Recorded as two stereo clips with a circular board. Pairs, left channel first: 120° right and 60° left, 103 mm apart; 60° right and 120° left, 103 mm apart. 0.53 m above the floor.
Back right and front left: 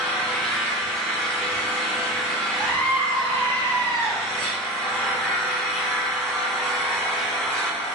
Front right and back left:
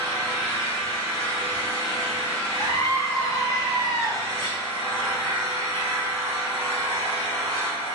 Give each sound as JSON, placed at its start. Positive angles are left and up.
{"t": 0.0, "sound": "an engine running", "azimuth_deg": 165, "distance_m": 1.2}
{"t": 2.6, "sound": "a scream", "azimuth_deg": -80, "distance_m": 0.9}